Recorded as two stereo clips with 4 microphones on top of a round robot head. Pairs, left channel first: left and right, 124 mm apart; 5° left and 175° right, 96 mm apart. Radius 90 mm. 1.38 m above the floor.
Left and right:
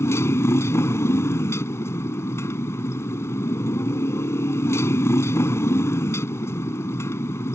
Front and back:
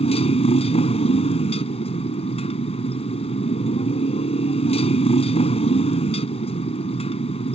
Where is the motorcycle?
20° left.